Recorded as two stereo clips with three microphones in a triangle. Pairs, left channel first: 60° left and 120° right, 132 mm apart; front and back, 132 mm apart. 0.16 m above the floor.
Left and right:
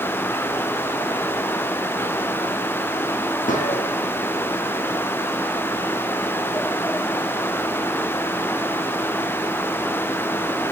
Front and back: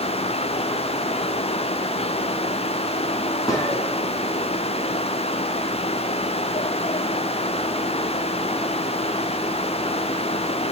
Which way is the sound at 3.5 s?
65° left.